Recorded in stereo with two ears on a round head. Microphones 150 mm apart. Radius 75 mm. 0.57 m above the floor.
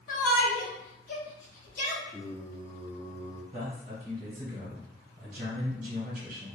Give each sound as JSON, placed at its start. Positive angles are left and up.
{"t": 0.1, "sound": "a shout", "side_deg": 50, "distance_m": 1.2}
{"t": 2.1, "sound": "singing", "side_deg": 15, "distance_m": 0.9}
{"t": 3.5, "sound": "a man speaking", "side_deg": -50, "distance_m": 1.7}